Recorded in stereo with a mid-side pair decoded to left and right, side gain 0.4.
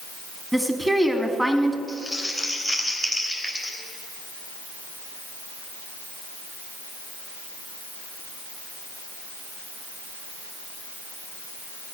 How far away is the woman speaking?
About 2.5 m.